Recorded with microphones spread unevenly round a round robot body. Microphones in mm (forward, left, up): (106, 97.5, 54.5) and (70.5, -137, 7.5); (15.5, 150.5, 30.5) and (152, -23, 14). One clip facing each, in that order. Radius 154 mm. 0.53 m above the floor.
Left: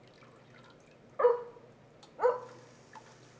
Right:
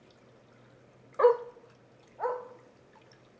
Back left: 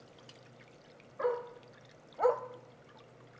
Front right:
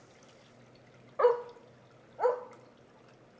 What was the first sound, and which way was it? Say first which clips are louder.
A dog barking: right 4 dB, front right 8 dB; 55° right.